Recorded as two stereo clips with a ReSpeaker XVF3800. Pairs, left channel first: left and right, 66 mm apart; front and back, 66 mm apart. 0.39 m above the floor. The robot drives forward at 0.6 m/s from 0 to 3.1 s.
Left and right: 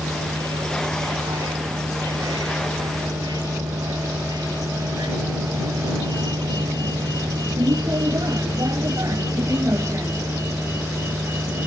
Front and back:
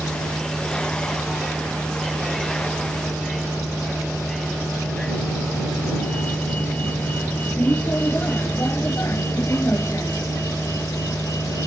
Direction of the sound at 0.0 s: 85° right.